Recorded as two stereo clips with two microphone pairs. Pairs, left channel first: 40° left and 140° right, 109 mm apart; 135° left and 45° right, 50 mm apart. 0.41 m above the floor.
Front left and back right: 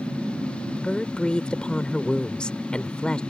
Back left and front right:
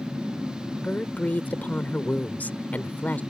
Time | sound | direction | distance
0.7 | a woman speaking | 115° left | ?